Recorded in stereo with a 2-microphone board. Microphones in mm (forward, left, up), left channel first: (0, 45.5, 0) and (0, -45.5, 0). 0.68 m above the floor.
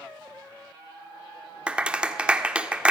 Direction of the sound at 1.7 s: 15° right (ahead or behind).